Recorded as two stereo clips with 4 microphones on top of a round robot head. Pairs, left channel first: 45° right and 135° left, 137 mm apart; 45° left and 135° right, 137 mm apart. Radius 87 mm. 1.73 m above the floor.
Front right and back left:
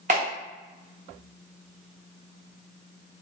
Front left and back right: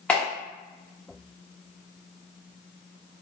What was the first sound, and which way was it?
A clap, 125° left.